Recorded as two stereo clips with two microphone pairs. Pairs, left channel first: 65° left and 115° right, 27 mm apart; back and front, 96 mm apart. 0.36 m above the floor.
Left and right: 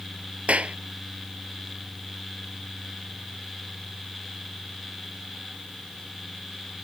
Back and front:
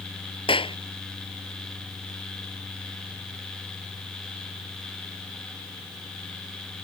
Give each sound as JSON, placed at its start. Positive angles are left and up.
{"t": 0.5, "sound": "a clap", "azimuth_deg": -155}